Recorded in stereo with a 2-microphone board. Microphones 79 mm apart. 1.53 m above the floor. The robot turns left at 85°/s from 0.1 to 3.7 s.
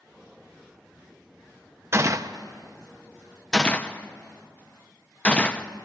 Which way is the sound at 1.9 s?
30° right (ahead or behind).